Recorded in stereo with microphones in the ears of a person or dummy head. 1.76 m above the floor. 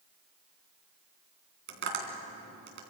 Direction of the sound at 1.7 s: 60° right (ahead or behind).